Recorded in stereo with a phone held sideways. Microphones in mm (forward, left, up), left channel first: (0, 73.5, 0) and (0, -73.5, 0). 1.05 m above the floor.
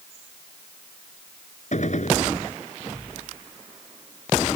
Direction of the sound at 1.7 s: 60° left (ahead or behind).